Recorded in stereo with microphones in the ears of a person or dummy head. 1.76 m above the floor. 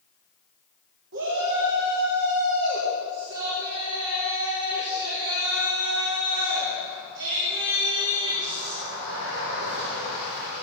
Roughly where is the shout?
Right.